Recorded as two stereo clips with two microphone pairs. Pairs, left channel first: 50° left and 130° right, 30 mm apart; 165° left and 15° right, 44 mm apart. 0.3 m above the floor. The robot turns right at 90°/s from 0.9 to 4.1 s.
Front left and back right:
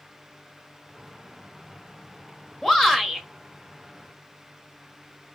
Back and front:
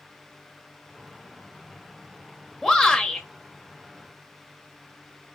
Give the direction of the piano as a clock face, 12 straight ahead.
I don't hear a piano.